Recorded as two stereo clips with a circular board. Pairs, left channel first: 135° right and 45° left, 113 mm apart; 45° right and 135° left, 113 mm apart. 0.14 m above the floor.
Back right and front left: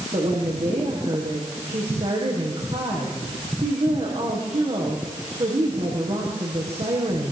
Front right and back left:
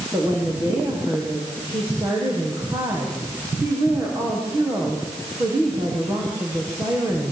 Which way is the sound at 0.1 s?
70° left.